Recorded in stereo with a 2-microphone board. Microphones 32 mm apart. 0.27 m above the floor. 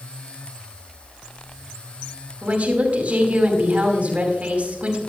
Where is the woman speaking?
50° right (ahead or behind), 2.5 m.